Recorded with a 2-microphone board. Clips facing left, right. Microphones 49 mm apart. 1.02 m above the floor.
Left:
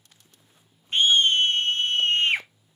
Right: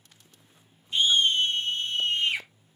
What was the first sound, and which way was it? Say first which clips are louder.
A scream: left 3 dB; 45° left (ahead or behind).